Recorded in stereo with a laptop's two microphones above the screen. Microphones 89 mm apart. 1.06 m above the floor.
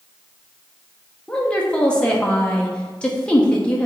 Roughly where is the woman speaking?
Centre.